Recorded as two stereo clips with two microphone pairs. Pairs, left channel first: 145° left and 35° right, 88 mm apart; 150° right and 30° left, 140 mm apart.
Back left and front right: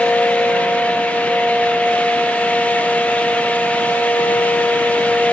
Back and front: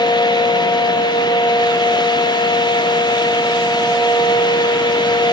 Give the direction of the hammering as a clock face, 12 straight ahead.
No hammering in this recording.